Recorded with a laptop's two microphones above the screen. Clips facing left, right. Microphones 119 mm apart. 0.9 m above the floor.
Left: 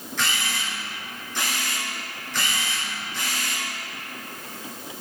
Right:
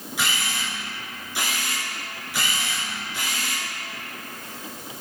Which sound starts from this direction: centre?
A camera shutter, at 0.2 s.